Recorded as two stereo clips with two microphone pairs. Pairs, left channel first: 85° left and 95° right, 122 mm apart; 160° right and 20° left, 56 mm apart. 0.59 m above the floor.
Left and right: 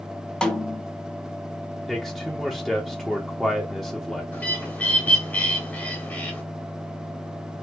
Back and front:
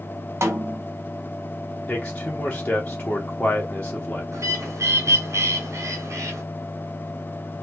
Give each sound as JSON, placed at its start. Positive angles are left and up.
{"t": 0.4, "sound": "a snare drum", "azimuth_deg": 0, "distance_m": 0.6}
{"t": 1.9, "sound": "a man speaking", "azimuth_deg": 170, "distance_m": 0.7}
{"t": 4.3, "sound": "a bird", "azimuth_deg": 10, "distance_m": 1.0}